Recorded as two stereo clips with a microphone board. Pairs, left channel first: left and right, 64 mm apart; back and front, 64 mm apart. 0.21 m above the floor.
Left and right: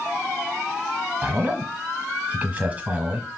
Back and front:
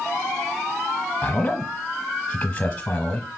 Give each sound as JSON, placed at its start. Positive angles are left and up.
{"t": 1.2, "sound": "a man speaking", "azimuth_deg": -135, "distance_m": 1.1}